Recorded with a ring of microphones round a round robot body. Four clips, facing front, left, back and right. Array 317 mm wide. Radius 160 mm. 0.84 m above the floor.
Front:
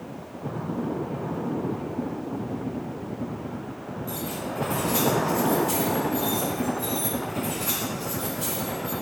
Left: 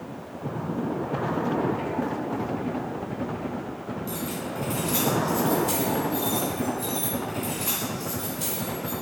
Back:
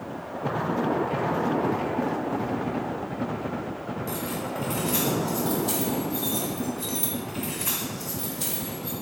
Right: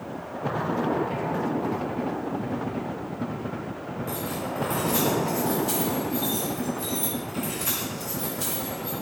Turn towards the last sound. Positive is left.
turn(degrees=-155)